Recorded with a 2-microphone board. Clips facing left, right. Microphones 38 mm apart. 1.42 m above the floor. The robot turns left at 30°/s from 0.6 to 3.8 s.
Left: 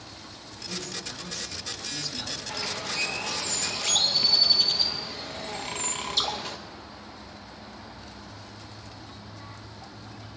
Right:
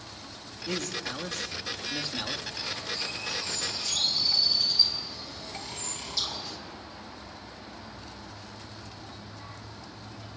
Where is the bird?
100° left, 2 m; by 6.6 s 60° left, 2 m.